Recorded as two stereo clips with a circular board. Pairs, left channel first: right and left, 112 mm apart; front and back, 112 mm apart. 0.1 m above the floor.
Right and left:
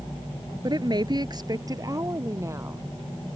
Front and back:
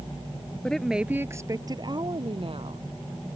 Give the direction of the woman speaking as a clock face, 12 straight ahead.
9 o'clock.